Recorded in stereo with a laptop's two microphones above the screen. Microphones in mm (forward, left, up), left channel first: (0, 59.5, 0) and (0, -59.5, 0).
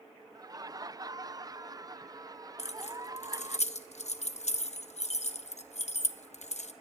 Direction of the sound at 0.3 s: 35° right (ahead or behind).